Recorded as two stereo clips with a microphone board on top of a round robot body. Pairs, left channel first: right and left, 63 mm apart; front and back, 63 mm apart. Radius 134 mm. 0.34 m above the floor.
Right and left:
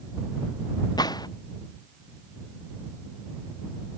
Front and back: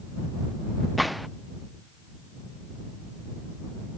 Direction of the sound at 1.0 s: 90° right.